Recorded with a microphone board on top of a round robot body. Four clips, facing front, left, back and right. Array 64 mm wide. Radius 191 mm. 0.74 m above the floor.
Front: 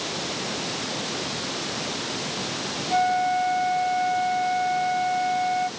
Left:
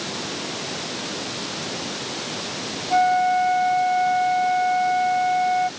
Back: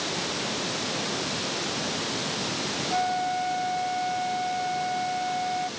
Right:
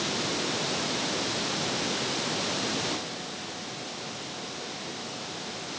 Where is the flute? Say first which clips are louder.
Left 19 dB, front 5 dB; 75° left.